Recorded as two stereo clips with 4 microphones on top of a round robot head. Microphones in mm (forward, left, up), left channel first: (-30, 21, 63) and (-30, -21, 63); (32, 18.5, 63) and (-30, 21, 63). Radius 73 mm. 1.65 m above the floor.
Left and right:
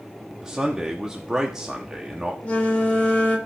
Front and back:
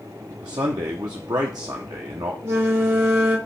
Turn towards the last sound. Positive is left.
turn(degrees=145)